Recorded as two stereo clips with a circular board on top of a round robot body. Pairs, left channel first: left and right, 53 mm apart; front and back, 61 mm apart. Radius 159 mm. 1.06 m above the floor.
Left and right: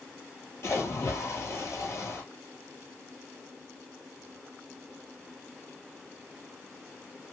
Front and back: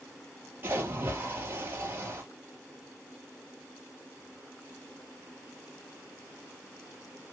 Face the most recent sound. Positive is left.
turn(degrees=130)